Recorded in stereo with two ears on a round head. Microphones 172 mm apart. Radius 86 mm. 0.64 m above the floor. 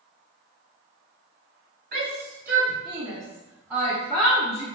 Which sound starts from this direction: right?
A shout, at 1.9 s.